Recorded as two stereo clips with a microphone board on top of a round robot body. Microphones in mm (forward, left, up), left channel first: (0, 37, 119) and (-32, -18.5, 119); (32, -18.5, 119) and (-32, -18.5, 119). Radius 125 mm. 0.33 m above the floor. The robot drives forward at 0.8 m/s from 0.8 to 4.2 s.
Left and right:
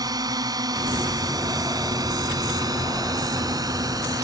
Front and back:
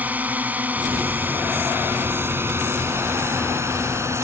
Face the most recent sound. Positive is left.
turn(degrees=-135)